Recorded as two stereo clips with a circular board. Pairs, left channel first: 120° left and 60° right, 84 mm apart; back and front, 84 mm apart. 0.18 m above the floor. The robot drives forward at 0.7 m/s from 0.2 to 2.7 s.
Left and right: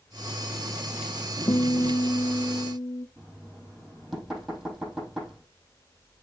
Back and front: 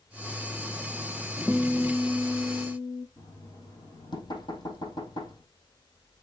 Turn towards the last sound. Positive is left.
turn(degrees=-150)